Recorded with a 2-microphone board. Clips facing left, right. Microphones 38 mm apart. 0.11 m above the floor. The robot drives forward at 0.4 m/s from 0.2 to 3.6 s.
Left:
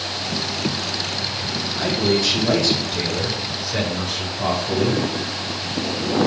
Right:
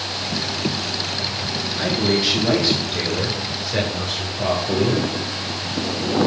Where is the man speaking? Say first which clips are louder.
Even; 20° right (ahead or behind), 1.2 m; by 5.0 s 15° right (ahead or behind), 1.4 m.